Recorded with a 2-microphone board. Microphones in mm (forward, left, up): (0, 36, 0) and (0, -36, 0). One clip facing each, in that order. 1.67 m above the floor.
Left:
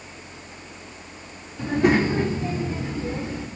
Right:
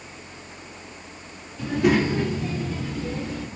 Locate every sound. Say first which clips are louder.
1.6 s a child speaking: left 1 dB; 35° left (ahead or behind), 1.7 m; by 3.5 s 30° left (ahead or behind), 2.5 m